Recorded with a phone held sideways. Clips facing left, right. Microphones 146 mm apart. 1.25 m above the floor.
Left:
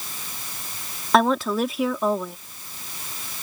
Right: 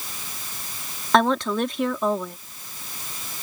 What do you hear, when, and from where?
1.1 s a woman speaking: 5° left (ahead or behind)